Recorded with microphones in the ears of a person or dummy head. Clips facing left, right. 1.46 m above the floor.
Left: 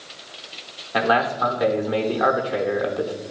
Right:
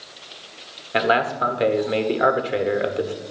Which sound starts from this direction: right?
A man speaking, at 0.9 s.